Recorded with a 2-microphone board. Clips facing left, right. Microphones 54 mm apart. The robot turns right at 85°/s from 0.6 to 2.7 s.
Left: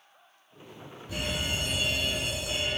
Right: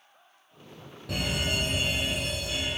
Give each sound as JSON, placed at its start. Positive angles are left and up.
{"t": 1.1, "sound": "a fire alarm", "azimuth_deg": -95, "distance_m": 7.0}